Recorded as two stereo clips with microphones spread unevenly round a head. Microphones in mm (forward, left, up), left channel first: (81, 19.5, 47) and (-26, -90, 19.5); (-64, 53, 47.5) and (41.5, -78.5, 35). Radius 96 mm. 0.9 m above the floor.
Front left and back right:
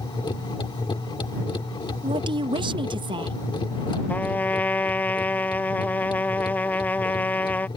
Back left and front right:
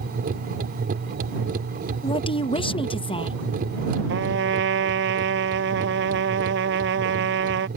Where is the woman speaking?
175° right.